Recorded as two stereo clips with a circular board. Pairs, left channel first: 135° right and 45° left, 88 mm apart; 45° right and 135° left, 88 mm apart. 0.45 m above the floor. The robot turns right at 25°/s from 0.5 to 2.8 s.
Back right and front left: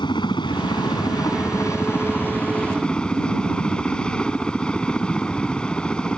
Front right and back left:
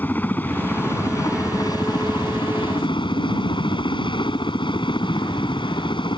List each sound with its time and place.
0.0 s a helicopter: 115° right; by 6.2 s 55° right